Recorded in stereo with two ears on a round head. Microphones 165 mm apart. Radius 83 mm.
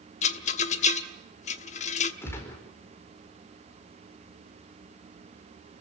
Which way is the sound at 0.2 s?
35° left (ahead or behind).